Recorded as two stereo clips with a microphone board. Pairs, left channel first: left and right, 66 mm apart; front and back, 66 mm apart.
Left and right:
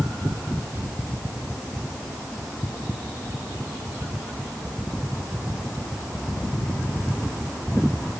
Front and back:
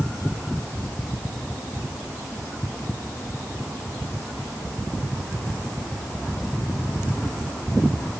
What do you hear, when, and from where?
Only background noise.